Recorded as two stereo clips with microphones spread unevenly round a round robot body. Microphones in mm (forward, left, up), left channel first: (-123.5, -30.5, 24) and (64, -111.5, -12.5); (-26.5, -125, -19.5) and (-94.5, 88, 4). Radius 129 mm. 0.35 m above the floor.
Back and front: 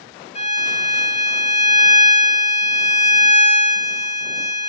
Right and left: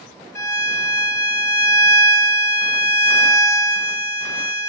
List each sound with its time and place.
0.3 s a violin: 145° right, 1.9 m